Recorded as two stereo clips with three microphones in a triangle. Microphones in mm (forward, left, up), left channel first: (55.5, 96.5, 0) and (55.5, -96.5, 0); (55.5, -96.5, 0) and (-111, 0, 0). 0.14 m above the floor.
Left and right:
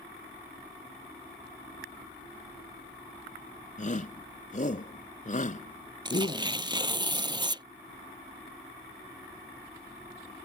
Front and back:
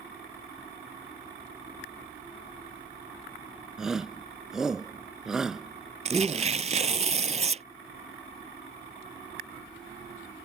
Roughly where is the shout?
Ahead left.